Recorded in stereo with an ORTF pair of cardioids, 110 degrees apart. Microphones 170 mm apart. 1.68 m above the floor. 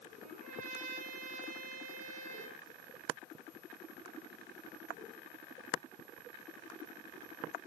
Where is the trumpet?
50° right, 7 m.